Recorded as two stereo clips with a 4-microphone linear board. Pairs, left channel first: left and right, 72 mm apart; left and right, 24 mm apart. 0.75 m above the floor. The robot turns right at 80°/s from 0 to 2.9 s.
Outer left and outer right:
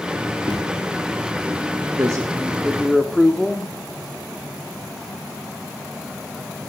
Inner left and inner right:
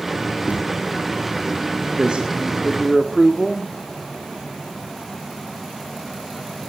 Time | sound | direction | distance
0.5 | a thud | 70° right (ahead or behind) | 6.5 m
2.0 | a man speaking | 70° right | 1.8 m